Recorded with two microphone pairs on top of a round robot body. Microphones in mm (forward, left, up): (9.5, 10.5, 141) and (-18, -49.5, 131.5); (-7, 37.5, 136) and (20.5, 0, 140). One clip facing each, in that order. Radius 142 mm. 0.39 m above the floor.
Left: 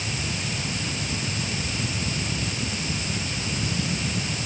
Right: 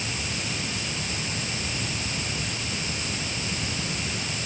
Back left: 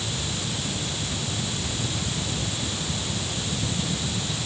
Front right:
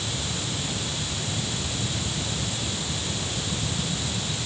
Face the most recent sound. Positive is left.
No sound to turn to.